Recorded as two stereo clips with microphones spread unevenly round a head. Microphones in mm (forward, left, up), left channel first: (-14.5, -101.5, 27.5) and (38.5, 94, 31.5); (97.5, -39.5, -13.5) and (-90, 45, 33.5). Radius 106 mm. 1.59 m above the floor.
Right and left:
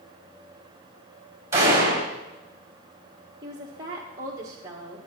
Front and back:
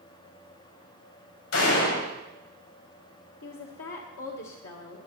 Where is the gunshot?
5° right, 7 m.